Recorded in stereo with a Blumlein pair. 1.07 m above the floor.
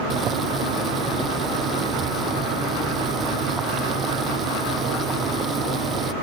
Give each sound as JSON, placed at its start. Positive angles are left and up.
{"t": 0.1, "sound": "boiling", "azimuth_deg": -25}